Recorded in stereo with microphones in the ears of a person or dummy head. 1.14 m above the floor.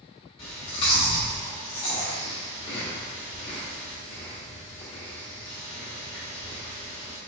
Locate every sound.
0.4 s chewing: 30° left (ahead or behind), 0.8 m